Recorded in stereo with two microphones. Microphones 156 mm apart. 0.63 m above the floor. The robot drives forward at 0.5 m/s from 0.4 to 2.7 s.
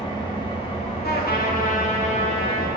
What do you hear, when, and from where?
0.0 s an engine running: 35° left (ahead or behind), 1.1 m; by 2.8 s 65° left (ahead or behind), 0.7 m
1.0 s a trumpet: 85° left, 0.6 m; by 2.7 s 35° left (ahead or behind), 1.0 m